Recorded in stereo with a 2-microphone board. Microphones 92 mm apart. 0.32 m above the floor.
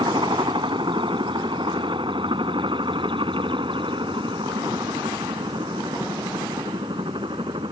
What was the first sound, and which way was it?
A helicopter, 60° right (ahead or behind).